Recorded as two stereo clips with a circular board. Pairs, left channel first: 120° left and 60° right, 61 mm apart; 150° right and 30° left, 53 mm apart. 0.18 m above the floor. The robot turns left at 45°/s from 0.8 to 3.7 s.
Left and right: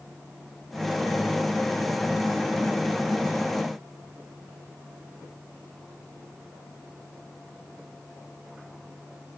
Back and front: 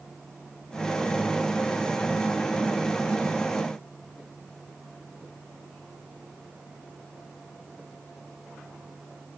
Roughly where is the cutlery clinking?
I don't hear cutlery clinking.